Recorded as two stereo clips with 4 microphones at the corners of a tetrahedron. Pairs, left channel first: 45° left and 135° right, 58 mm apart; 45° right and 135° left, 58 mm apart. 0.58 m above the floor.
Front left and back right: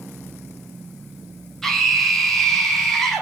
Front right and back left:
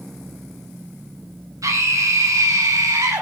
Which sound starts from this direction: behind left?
A scream, at 1.6 s.